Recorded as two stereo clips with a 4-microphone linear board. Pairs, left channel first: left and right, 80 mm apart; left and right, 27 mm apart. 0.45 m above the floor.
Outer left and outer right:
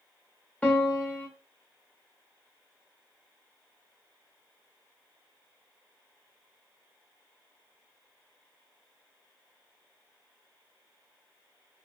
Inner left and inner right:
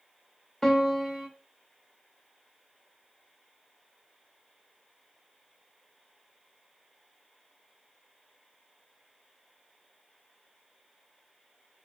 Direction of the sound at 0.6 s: 20° left (ahead or behind).